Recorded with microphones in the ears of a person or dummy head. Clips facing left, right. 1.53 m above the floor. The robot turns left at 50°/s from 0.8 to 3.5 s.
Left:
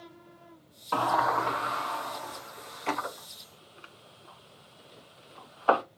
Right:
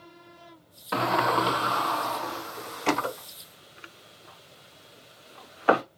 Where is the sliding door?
25° right (ahead or behind), 0.6 m.